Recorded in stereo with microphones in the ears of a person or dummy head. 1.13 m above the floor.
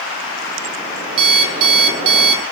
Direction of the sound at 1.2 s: 35° right (ahead or behind).